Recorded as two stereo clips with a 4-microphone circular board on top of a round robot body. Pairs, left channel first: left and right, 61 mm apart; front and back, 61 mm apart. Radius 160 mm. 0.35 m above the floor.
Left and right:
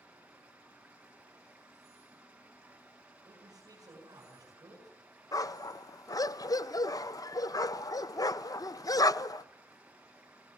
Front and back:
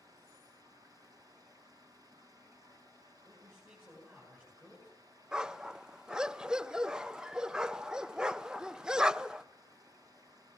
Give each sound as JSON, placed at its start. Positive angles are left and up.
{"t": 0.0, "sound": "running water", "azimuth_deg": -160, "distance_m": 4.5}
{"t": 3.2, "sound": "a man speaking", "azimuth_deg": -120, "distance_m": 8.5}
{"t": 5.3, "sound": "a dog barking", "azimuth_deg": 100, "distance_m": 0.6}